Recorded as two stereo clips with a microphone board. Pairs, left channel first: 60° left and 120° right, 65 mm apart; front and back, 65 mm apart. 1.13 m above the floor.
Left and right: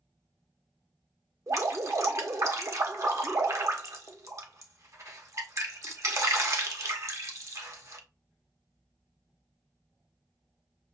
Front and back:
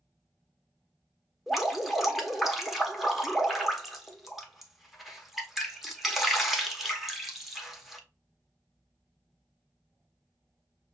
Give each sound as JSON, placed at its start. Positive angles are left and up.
{"t": 1.5, "sound": "dripping", "azimuth_deg": -95, "distance_m": 0.9}